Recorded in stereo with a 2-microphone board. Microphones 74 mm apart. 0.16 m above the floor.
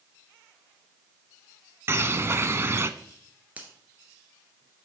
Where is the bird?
35° right (ahead or behind), 0.5 m.